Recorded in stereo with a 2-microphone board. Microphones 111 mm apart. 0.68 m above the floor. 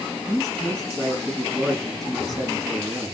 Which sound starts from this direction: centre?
A man speaking, at 0.3 s.